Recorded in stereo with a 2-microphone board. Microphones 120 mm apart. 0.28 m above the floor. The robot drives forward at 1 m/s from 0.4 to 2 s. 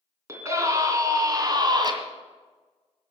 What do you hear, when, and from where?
0.3 s a scream: 25° right (ahead or behind), 3 m; by 1.9 s 40° right (ahead or behind), 2 m